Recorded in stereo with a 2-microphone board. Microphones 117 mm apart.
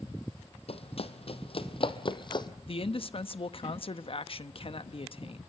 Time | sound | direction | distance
0.7 | running footsteps | 55° left (ahead or behind) | 1.4 m
2.7 | a man speaking | 50° left (ahead or behind) | 0.9 m